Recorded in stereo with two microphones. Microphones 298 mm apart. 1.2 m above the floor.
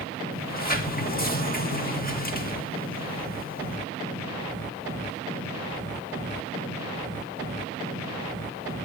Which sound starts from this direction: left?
A sliding door, at 0.3 s.